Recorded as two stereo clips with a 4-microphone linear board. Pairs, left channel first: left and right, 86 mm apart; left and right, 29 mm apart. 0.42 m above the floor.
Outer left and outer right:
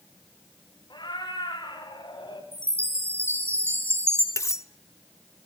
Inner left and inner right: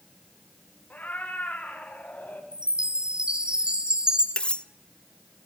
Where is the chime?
30° right (ahead or behind), 4 m.